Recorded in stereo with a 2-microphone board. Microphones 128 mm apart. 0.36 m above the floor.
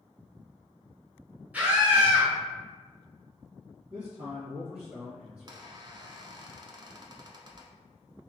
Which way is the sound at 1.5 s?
15° right (ahead or behind).